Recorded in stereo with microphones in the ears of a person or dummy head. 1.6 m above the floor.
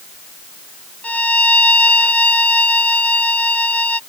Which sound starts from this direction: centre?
A violin, at 1.0 s.